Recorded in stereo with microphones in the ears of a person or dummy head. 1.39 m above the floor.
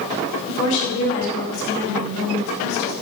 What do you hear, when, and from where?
0.5 s a woman speaking: 65° left (ahead or behind), 5.5 m